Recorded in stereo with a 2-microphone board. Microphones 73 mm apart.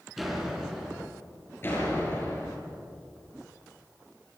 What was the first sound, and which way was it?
A door slam, centre (ahead or behind).